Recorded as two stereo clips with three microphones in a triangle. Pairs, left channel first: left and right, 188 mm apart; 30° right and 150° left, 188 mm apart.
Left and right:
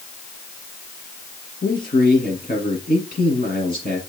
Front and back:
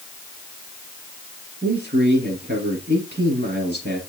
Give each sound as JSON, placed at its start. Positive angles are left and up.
{"t": 1.6, "sound": "a man speaking", "azimuth_deg": 130, "distance_m": 5.5}